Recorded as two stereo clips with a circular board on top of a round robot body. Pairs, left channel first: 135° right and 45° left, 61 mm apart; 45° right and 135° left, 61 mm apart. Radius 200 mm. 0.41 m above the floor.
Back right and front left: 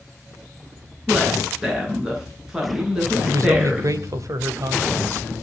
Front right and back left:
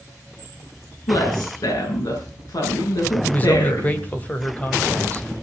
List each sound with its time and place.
1.1 s a woman speaking: 35° right, 9.5 m
3.2 s a man speaking: 20° left, 3 m